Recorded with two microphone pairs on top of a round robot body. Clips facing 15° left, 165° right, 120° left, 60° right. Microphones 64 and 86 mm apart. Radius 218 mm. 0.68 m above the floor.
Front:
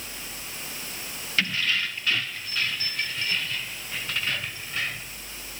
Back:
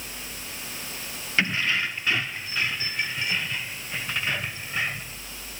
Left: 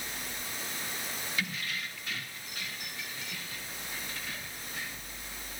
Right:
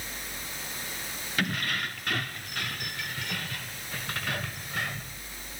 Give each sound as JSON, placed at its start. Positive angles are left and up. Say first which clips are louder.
{"t": 1.4, "sound": "keys jangling", "louder": "back 2 dB, right 8 dB", "azimuth_deg": -100}